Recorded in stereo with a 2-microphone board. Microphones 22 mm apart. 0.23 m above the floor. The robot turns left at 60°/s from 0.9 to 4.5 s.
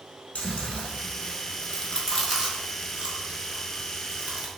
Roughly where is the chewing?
Left.